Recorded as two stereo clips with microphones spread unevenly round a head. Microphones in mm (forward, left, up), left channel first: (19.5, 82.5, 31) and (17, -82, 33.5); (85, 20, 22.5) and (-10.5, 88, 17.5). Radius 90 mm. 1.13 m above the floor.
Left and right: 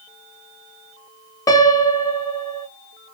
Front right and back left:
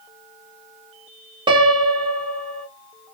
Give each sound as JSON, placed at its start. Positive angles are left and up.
{"t": 1.5, "sound": "a piano", "azimuth_deg": 145, "distance_m": 0.8}